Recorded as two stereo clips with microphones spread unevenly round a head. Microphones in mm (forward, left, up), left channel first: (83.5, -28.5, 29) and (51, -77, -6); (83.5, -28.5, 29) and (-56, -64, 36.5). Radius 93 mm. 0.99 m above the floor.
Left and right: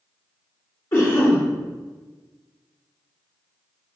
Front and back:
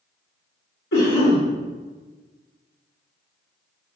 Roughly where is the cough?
Ahead left.